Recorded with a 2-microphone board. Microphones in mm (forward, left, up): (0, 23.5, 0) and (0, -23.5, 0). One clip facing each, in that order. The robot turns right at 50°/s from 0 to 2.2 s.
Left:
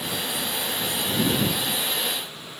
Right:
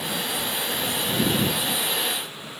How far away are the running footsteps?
I don't hear running footsteps.